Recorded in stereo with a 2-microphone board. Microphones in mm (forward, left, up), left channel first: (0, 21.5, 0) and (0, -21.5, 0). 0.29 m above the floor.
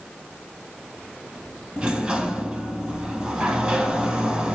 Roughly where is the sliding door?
Right.